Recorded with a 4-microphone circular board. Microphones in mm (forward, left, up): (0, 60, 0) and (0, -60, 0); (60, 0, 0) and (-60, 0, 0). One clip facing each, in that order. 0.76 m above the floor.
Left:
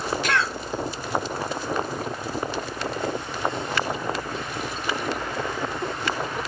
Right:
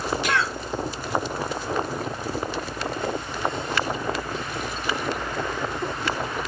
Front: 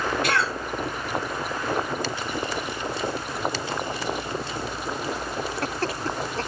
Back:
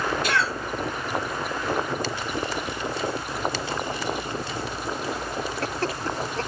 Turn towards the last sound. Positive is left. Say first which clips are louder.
# left 1 dB, even
turn(degrees=-10)